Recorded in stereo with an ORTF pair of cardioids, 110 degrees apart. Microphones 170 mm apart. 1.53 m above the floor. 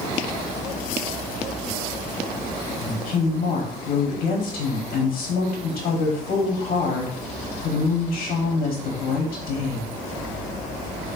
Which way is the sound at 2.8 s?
55° left.